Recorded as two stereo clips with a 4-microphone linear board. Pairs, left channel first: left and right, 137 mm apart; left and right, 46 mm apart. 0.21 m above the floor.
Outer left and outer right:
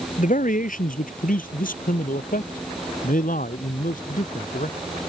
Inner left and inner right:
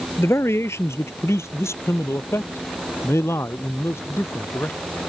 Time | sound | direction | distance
0.2 | a man speaking | 70° left (ahead or behind) | ?